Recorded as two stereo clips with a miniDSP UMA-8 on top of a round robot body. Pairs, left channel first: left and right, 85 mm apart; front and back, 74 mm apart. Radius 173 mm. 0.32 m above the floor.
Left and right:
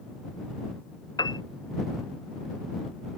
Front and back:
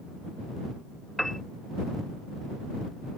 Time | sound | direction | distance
1.2 | a piano | 85° left | ?